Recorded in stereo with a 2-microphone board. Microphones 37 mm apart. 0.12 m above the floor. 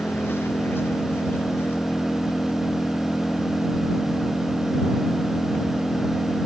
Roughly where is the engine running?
Left.